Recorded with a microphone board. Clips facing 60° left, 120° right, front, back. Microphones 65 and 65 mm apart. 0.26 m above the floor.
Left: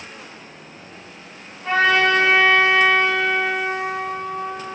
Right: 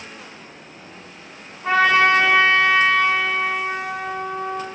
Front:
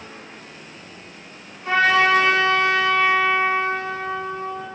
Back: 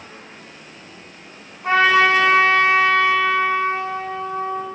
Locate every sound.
1.6 s a trumpet: 170° left, 2 m